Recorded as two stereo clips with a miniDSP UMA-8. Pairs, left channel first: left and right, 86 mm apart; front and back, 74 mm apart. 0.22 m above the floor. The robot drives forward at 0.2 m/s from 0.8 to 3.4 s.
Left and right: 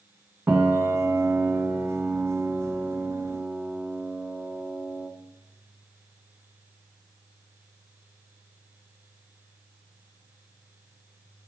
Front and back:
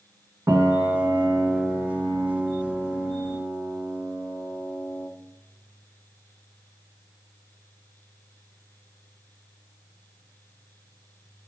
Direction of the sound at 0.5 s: 150° right.